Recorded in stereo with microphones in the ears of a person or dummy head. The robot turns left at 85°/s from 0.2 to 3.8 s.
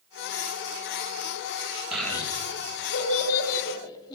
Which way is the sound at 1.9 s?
5° right (ahead or behind).